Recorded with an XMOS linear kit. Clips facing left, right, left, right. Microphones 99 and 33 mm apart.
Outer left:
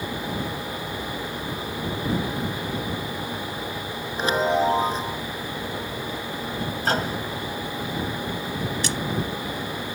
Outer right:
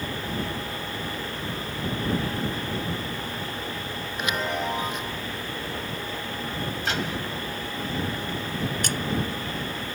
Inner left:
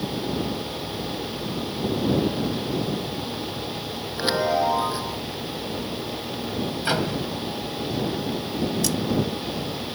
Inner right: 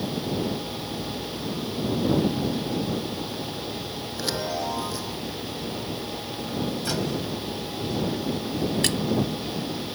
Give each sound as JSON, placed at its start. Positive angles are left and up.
{"t": 4.2, "sound": "a chime", "side_deg": 35}
{"t": 6.8, "sound": "a microwave", "side_deg": 40}
{"t": 8.8, "sound": "a splash", "side_deg": -50}